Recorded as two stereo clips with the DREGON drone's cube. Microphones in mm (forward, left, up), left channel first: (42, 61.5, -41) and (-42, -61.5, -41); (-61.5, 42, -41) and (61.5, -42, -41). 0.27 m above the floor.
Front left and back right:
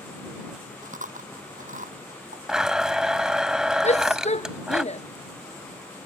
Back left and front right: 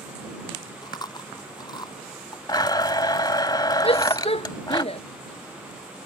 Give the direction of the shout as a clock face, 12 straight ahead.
9 o'clock.